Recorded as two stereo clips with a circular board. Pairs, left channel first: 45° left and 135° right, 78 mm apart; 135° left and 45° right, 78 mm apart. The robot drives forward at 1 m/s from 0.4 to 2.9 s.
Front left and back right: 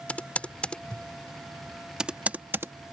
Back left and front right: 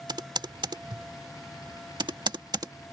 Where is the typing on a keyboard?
25° right; by 2.7 s 80° right.